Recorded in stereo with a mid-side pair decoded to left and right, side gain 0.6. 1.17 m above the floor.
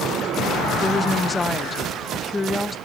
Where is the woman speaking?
15° left, 1.4 m.